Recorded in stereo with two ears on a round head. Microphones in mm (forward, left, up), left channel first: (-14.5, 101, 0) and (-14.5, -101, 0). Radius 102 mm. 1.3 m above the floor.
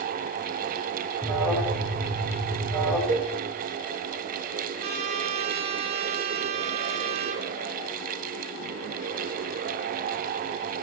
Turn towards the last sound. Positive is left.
turn(degrees=-45)  # may be behind; listen again after turning